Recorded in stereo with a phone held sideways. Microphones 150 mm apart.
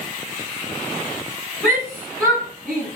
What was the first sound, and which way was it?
A shout, 5° left (ahead or behind).